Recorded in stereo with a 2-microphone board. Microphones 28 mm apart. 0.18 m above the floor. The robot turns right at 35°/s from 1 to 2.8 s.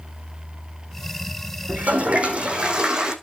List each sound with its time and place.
1.7 s a toilet flushing: 65° right, 2 m; by 3.1 s 30° right, 2 m